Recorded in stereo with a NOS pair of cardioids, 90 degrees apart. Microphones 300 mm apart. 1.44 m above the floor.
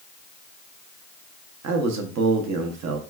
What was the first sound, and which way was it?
A man speaking, 60° right.